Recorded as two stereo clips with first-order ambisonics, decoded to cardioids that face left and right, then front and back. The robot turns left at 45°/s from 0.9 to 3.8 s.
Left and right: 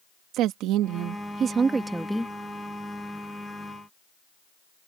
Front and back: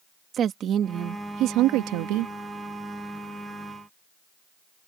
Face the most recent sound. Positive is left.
turn(degrees=105)